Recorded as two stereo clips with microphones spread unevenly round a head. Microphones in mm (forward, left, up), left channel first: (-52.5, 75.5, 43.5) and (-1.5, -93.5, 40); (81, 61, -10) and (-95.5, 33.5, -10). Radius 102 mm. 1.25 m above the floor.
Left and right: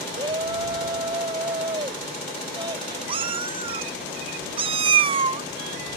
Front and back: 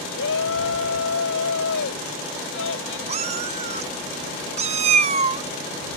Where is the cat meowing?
125° right.